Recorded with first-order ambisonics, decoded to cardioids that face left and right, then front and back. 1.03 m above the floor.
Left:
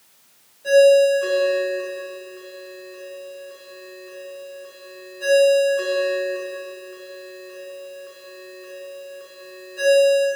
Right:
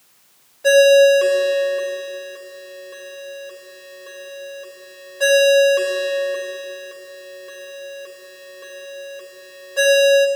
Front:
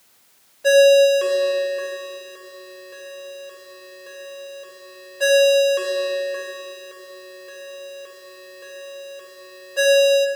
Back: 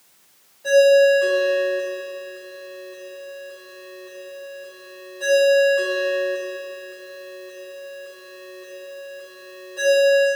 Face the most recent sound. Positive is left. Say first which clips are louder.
# right 2 dB, front 1 dB
turn(degrees=-50)